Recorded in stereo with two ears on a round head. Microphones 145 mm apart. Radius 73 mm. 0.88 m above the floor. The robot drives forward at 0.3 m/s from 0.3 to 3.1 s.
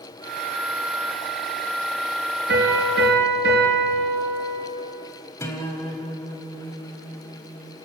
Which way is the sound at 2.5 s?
75° right (ahead or behind).